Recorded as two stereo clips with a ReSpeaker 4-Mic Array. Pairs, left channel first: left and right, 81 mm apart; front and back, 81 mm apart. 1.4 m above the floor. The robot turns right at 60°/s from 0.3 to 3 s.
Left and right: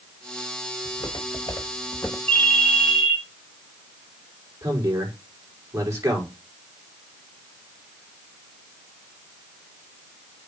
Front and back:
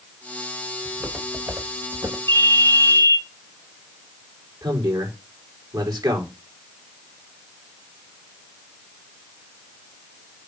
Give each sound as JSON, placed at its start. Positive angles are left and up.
{"t": 0.8, "sound": "footsteps", "azimuth_deg": 85, "distance_m": 5.5}
{"t": 2.3, "sound": "a ringtone", "azimuth_deg": 160, "distance_m": 4.0}
{"t": 4.6, "sound": "a man speaking", "azimuth_deg": -145, "distance_m": 5.0}